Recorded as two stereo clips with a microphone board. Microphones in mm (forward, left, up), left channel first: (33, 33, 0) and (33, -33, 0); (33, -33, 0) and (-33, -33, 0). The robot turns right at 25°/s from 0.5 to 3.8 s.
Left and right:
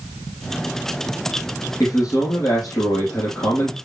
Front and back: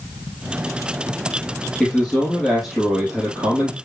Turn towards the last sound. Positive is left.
turn(degrees=115)